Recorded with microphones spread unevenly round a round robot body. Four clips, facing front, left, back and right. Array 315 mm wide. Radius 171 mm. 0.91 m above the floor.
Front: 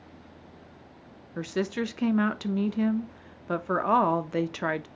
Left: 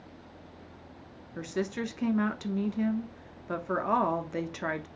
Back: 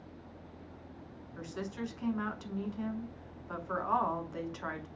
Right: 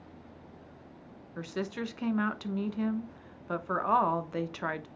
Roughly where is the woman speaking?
Ahead.